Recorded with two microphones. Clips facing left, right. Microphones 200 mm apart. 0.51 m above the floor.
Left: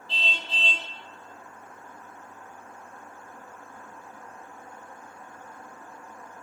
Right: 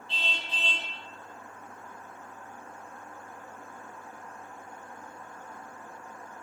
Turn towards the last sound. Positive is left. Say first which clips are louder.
# left 2 dB
turn(degrees=35)  # may be behind; listen again after turning